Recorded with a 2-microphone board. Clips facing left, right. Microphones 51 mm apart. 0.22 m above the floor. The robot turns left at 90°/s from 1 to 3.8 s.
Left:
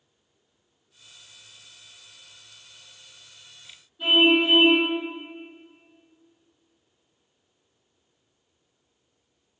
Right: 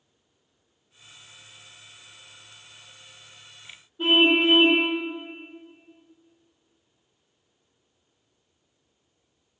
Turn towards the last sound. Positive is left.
turn(degrees=-35)  # may be behind; listen again after turning